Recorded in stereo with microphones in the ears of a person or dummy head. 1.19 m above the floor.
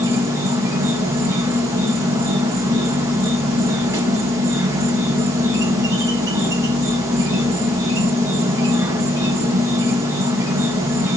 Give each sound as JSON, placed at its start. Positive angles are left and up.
{"t": 0.0, "sound": "an insect", "side_deg": -10, "distance_m": 0.9}